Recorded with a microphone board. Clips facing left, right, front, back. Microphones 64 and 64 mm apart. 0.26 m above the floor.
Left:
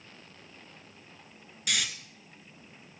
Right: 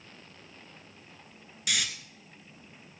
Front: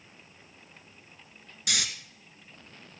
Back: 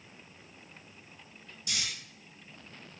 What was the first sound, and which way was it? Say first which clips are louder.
Snoring: even, front 6 dB; straight ahead.